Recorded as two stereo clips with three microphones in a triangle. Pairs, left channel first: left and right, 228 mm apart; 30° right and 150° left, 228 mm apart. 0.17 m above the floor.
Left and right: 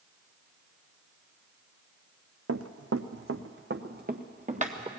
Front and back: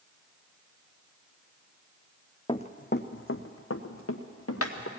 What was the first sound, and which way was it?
Running footsteps, 100° right.